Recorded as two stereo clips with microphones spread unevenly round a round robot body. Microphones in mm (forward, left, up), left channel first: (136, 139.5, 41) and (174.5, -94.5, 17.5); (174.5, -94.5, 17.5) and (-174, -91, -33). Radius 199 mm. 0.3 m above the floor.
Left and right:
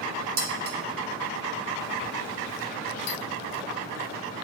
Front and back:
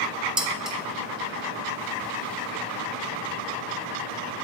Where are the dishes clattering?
100° right, 0.9 m.